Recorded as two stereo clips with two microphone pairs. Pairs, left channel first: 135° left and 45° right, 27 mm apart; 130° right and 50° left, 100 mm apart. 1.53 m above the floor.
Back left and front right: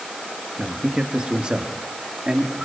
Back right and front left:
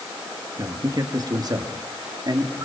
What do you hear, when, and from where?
0.6 s a man speaking: 5° left, 2.5 m